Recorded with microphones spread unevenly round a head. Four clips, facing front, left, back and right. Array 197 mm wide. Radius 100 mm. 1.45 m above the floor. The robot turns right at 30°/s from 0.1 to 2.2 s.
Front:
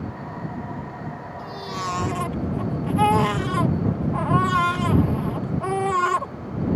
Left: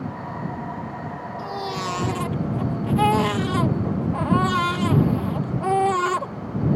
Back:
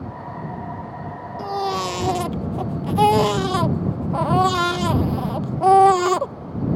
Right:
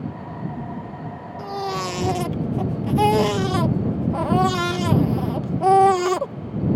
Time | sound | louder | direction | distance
1.4 | a baby crying | right 3 dB, back 9 dB | 150° right | ?